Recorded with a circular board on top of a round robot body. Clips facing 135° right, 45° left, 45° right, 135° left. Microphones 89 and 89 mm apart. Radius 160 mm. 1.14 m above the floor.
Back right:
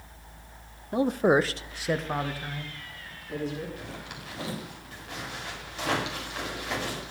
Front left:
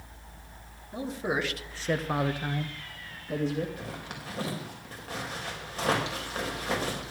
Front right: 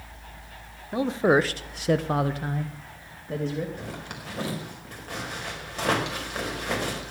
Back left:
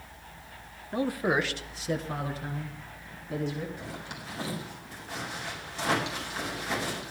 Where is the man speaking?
120° right, 1.6 m; by 3.7 s straight ahead, 3 m.